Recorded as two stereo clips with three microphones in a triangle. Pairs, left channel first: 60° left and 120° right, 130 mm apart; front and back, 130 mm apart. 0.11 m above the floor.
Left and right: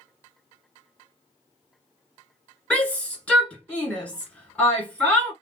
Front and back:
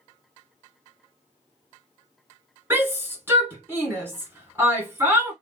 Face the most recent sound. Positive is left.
turn(degrees=130)